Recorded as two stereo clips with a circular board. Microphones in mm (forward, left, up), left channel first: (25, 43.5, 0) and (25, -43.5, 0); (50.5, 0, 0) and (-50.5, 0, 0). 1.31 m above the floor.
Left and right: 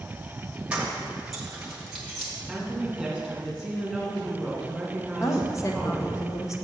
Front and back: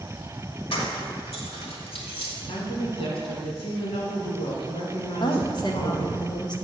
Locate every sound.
0.7 s keys jangling: 10° right, 1.2 m; by 2.3 s straight ahead, 2 m
2.5 s a woman speaking: straight ahead, 2.5 m
5.2 s a woman speaking: 40° left, 0.9 m